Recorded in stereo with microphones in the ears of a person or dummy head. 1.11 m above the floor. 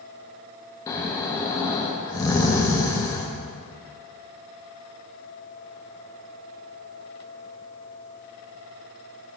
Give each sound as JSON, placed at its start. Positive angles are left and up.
{"t": 0.9, "sound": "snoring", "side_deg": 20, "distance_m": 0.6}